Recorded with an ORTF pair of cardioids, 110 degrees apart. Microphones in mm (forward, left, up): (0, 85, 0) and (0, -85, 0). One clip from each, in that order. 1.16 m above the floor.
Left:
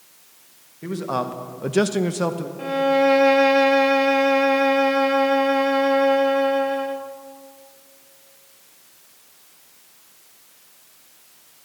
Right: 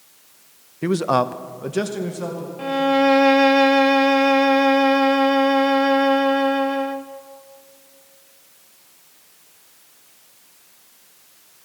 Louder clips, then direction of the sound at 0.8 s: Right 6 dB; 55° right.